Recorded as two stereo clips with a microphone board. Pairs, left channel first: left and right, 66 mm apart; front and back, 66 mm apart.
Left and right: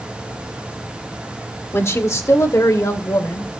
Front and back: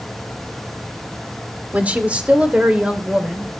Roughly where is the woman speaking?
Behind left.